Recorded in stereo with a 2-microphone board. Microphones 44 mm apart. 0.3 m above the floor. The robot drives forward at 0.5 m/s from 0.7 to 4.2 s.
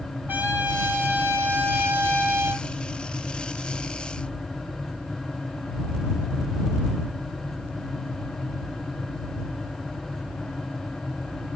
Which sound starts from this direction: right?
A trumpet, at 0.3 s.